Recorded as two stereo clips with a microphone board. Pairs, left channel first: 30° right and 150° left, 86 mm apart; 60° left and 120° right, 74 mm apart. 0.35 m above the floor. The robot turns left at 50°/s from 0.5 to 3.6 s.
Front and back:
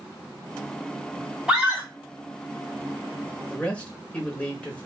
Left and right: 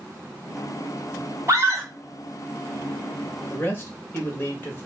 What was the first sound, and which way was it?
A scream, 130° right.